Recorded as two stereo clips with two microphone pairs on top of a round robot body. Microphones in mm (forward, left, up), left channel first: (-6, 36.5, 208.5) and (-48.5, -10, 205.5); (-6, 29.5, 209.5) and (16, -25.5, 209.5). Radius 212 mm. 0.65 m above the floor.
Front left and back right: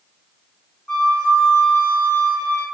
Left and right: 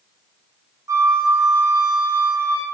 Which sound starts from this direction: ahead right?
A flute, at 0.9 s.